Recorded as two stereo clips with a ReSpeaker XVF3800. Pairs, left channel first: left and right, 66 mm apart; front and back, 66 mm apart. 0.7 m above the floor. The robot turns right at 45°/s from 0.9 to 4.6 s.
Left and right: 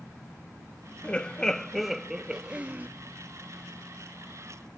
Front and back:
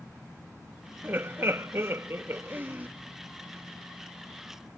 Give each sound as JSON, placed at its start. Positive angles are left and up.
{"t": 1.0, "sound": "laughter", "azimuth_deg": 150}